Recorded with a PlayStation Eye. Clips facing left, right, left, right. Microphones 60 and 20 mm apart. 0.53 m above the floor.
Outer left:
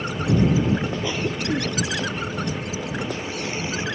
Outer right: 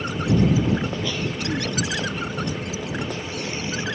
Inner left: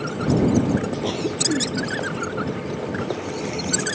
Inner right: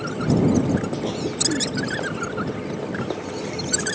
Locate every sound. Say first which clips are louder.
1.0 s a cough: outer left 2 dB, inner left 1 dB; 20° left (ahead or behind)